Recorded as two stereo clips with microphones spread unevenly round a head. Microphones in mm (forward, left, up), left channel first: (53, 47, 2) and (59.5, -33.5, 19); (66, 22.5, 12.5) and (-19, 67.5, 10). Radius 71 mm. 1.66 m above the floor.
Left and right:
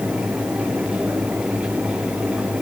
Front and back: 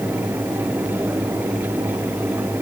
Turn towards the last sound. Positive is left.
No sound to turn to.